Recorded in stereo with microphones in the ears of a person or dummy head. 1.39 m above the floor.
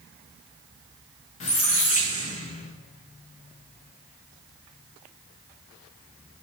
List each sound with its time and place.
1.4 s a squeak: 35° left (ahead or behind), 0.8 m